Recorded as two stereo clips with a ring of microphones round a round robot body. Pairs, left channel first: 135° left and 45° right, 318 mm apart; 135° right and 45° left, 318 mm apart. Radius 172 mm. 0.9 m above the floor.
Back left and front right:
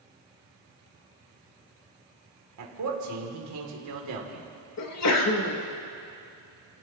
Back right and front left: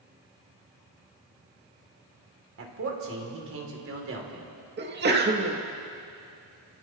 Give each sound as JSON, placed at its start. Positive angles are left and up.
{"t": 2.6, "sound": "a man speaking", "azimuth_deg": -5, "distance_m": 2.5}
{"t": 4.8, "sound": "a sneeze", "azimuth_deg": 100, "distance_m": 2.0}